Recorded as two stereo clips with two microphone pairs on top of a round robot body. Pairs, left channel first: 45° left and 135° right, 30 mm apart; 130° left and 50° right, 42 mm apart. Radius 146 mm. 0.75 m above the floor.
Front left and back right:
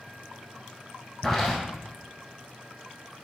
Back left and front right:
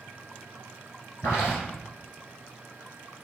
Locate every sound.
1.2 s footsteps: 135° left, 1.4 m